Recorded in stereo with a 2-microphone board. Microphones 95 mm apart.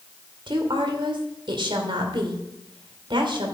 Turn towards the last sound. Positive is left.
turn(degrees=-65)  # may be behind; listen again after turning